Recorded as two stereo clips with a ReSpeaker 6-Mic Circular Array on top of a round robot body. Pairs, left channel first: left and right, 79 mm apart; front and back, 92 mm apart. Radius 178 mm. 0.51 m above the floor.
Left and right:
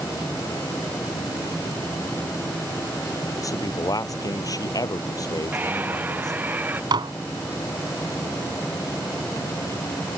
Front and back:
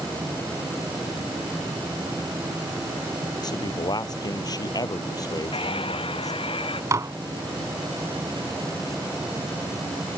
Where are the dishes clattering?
120° right.